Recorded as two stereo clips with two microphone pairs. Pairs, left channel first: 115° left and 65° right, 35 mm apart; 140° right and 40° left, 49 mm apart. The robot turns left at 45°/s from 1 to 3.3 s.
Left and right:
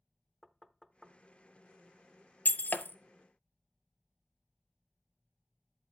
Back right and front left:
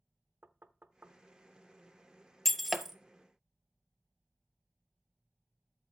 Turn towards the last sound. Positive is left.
turn(degrees=100)